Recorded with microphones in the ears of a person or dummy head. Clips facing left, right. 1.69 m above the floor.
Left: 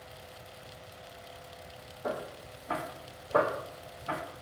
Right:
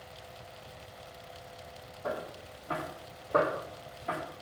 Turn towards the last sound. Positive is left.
turn(degrees=-25)  # may be behind; listen again after turning